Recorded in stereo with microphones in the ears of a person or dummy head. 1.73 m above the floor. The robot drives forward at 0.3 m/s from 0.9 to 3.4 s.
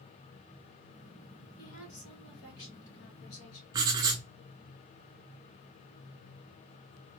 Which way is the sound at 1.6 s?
80° left.